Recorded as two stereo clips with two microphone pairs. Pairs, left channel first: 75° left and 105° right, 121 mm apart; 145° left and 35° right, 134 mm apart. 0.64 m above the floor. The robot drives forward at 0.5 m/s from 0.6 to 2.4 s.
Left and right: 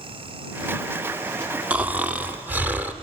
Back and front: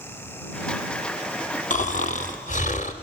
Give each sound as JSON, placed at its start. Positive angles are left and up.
{"t": 1.7, "sound": "snoring", "azimuth_deg": 170, "distance_m": 0.5}